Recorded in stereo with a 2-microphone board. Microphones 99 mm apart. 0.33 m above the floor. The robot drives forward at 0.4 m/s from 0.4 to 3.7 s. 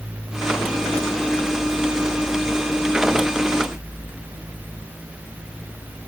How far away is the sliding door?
I don't hear a sliding door.